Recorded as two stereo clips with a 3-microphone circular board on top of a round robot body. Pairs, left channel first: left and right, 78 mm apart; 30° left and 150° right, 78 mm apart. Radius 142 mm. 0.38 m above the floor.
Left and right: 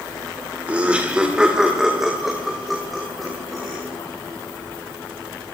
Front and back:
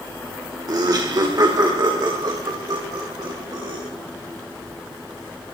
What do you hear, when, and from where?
0.7 s laughter: 160° right, 2 m; by 3.8 s 175° left, 4 m